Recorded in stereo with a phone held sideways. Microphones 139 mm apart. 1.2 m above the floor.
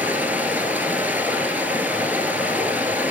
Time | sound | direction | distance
0.0 | running water | 10° right (ahead or behind) | 1.5 m